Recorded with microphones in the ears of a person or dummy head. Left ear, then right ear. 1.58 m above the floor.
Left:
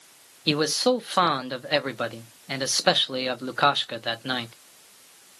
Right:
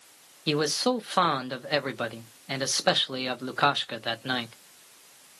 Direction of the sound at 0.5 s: Centre (ahead or behind).